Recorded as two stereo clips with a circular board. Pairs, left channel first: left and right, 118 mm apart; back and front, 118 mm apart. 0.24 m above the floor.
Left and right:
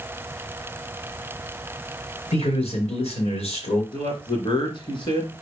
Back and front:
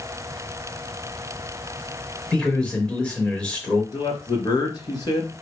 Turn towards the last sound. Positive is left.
turn(degrees=130)